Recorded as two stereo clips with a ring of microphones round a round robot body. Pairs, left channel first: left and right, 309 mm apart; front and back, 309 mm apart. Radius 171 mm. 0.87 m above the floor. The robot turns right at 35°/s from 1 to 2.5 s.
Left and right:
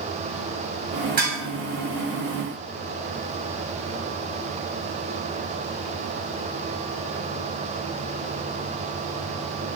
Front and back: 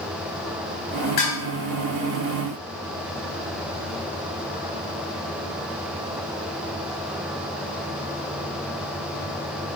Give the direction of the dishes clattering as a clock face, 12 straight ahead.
1 o'clock.